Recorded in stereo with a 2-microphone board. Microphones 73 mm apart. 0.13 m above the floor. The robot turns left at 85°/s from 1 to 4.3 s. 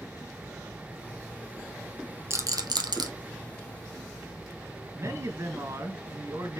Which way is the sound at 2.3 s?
35° right (ahead or behind).